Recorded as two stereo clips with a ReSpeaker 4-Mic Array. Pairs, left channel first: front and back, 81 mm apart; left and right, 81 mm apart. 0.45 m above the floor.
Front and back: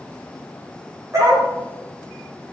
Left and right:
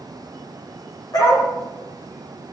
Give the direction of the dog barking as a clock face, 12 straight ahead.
8 o'clock.